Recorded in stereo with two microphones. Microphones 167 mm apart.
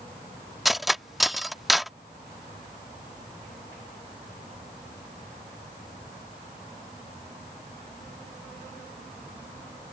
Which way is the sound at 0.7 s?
Centre (ahead or behind).